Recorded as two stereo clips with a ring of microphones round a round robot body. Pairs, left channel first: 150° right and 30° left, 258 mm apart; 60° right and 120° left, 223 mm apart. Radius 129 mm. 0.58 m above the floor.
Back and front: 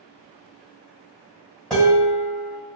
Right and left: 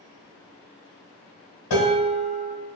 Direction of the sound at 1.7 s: 60° right.